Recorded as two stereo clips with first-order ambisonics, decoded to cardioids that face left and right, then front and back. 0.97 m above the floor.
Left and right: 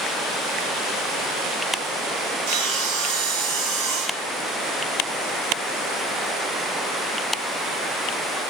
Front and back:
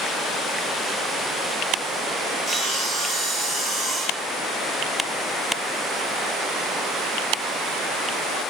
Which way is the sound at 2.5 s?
100° right.